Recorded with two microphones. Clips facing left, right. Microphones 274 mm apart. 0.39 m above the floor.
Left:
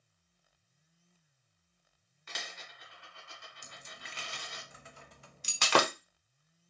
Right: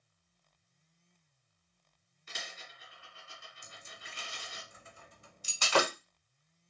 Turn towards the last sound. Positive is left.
turn(degrees=65)  # may be behind; listen again after turning